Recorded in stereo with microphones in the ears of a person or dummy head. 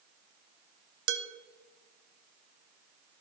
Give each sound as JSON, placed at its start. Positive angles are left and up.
{"t": 1.1, "sound": "dishes clattering", "side_deg": -65, "distance_m": 0.6}